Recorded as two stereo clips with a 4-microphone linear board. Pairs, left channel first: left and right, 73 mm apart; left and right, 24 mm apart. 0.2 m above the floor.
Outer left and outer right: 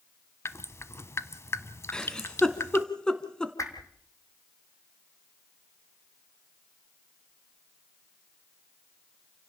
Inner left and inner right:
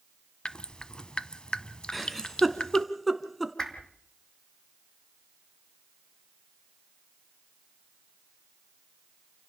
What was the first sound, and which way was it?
Dripping, 40° left (ahead or behind).